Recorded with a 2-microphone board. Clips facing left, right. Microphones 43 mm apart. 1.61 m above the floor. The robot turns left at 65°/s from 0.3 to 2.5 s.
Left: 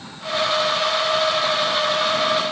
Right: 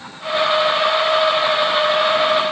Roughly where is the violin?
No violin in this recording.